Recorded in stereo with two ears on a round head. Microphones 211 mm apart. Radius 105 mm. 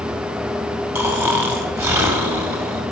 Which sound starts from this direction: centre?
Snoring, at 0.9 s.